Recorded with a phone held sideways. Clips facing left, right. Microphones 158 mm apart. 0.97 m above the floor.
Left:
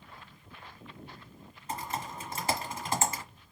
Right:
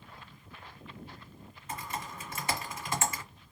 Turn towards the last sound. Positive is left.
turn(degrees=35)  # may be behind; listen again after turning